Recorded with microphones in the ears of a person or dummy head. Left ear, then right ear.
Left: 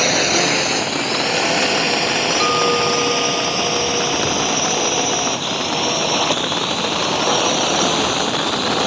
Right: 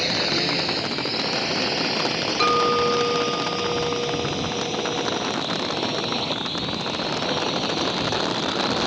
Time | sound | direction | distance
0.0 | a drone | 35° left (ahead or behind) | ?
2.4 | a clink | 15° right (ahead or behind) | ?